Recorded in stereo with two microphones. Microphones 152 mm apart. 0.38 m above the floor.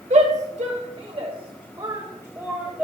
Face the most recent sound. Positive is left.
turn(degrees=-10)  # may be behind; listen again after turning